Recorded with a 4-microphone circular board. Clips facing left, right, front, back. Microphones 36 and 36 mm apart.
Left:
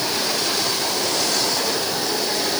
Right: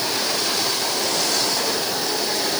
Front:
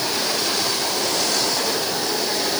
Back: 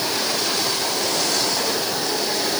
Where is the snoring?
I don't hear snoring.